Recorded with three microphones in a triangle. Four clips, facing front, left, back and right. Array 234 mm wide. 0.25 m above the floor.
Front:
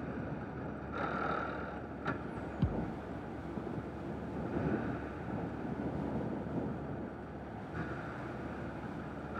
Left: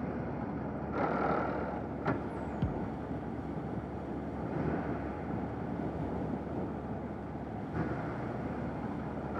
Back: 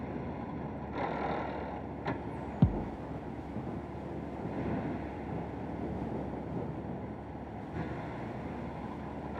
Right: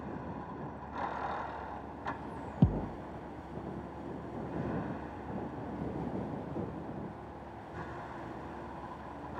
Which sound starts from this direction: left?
A vehicle, at 0.0 s.